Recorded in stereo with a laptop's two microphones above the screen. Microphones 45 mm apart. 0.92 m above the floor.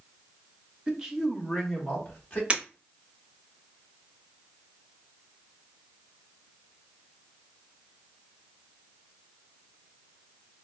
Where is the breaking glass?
30° right (ahead or behind), 0.8 m.